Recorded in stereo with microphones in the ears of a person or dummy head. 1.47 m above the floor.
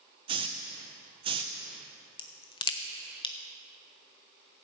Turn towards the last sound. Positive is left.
turn(degrees=25)  # may be behind; listen again after turning